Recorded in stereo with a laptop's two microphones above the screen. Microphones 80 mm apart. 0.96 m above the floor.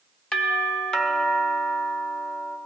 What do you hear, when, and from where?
0.3 s a doorbell: 10° left (ahead or behind), 1.4 m